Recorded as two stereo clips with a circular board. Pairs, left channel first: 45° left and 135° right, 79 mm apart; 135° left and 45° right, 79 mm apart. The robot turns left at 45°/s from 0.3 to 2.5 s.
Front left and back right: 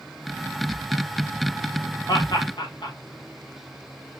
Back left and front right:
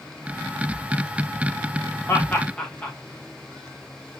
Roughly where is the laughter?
Left.